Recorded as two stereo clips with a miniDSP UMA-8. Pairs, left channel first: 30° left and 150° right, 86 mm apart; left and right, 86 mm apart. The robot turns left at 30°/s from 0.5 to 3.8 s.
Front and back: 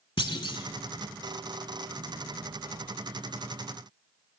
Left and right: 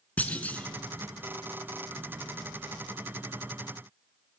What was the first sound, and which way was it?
A clunk, 20° left.